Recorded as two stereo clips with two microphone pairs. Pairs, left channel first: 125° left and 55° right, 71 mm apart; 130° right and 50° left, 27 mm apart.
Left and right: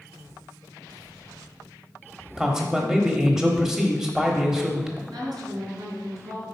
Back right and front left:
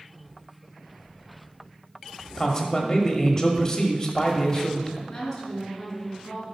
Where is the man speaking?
130° right, 1.1 m.